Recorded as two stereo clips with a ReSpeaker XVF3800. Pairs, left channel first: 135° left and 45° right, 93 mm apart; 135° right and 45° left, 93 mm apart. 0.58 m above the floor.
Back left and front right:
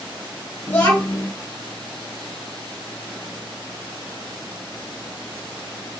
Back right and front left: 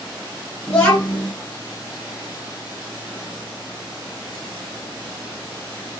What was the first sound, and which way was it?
A child speaking, 165° left.